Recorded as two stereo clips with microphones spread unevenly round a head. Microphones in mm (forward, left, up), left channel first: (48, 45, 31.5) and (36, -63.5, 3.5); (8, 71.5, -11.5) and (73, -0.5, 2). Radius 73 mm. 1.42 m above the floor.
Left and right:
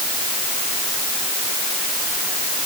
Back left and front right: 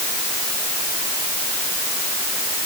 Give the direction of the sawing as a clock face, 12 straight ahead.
No sawing in this recording.